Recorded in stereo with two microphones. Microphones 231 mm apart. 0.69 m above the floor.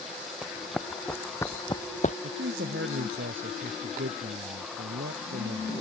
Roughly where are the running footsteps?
Centre.